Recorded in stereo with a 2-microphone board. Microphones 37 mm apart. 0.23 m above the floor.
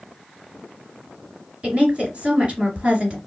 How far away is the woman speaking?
About 2.5 m.